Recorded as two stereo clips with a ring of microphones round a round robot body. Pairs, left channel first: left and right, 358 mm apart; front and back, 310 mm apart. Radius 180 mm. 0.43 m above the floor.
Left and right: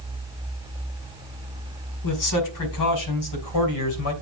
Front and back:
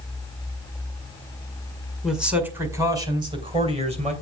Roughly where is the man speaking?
Left.